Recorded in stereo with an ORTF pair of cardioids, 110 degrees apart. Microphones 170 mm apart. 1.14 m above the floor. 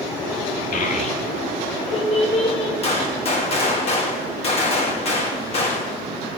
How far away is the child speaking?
About 1.7 m.